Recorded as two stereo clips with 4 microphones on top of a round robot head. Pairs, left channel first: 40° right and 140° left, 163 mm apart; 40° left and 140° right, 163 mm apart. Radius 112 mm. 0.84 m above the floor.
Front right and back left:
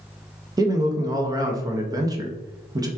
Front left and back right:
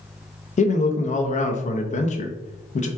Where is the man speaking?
75° left, 0.7 m.